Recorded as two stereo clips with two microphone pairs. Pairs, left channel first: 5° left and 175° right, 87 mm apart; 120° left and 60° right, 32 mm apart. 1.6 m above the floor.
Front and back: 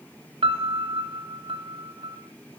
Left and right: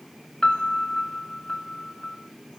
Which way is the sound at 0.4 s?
175° right.